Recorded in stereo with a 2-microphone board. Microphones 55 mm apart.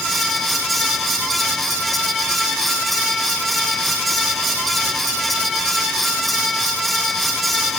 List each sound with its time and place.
Only background noise.